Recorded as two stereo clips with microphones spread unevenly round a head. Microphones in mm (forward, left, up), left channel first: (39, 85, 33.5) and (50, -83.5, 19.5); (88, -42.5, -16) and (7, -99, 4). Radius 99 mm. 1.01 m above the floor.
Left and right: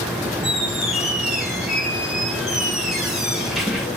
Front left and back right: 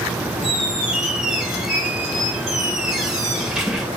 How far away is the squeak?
About 0.7 m.